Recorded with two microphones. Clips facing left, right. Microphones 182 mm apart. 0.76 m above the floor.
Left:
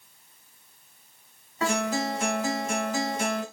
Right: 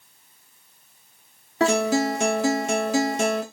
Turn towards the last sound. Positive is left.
turn(degrees=-80)